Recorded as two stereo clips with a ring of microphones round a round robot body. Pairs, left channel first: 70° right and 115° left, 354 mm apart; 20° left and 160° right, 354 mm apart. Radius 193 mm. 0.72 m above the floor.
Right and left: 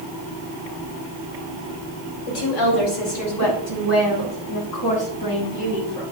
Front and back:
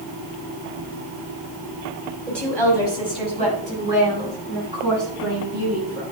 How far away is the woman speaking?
About 5 m.